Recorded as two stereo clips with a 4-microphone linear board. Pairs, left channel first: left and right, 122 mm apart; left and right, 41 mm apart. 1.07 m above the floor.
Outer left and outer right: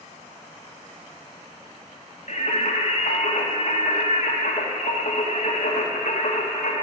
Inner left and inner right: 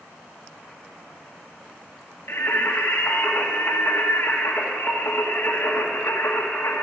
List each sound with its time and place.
2.3 s singing: 80° left, 1.9 m